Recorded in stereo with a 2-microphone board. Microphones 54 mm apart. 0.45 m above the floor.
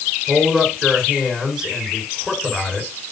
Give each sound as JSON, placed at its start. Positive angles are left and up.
{"t": 0.3, "sound": "a man speaking", "side_deg": -5, "distance_m": 6.0}